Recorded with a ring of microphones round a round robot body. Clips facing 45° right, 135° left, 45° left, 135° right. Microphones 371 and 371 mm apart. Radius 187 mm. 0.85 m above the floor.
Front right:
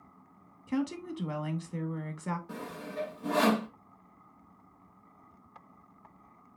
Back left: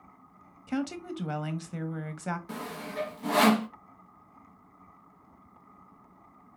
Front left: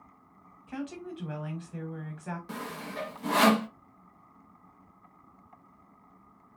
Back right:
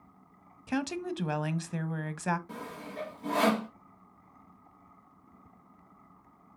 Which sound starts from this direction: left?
Sawing, at 2.5 s.